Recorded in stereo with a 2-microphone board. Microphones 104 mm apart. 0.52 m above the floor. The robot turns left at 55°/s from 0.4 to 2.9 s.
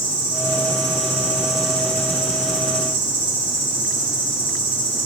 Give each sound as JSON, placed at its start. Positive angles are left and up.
{"t": 0.0, "sound": "an insect", "azimuth_deg": -110, "distance_m": 3.0}